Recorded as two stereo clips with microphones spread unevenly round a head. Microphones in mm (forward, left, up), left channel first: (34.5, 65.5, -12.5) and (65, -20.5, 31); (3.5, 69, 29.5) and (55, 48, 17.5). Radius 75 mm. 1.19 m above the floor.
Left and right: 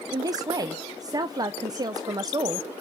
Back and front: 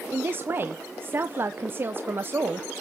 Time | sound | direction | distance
0.1 | a man speaking | 5° right | 0.7 m